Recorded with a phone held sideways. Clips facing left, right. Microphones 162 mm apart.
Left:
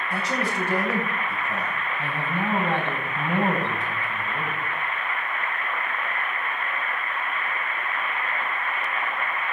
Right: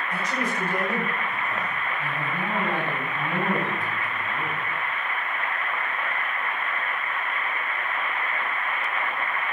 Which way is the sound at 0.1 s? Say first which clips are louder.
Left 2 dB; 85° left.